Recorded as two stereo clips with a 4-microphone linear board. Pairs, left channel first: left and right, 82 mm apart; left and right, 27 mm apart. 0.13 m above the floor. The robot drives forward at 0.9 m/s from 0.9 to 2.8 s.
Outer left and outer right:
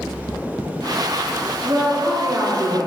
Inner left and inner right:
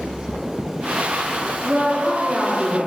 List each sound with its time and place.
1.6 s a woman speaking: 30° right (ahead or behind), 1.3 m; by 2.9 s 25° right (ahead or behind), 1.5 m